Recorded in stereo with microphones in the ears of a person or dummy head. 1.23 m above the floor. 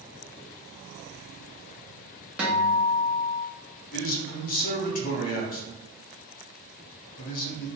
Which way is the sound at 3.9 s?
40° left (ahead or behind).